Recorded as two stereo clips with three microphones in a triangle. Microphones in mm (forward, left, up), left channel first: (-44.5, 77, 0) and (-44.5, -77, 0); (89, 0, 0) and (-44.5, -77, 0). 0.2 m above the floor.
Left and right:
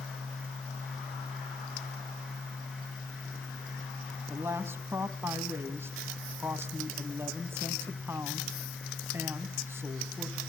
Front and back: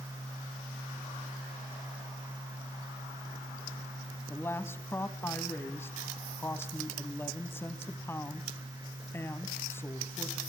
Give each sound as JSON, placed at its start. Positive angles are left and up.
{"t": 4.3, "sound": "a woman speaking", "azimuth_deg": -30, "distance_m": 1.2}